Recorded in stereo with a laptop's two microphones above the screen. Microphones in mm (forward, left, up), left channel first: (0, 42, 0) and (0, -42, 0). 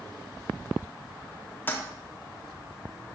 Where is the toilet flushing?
25° left (ahead or behind), 0.8 m.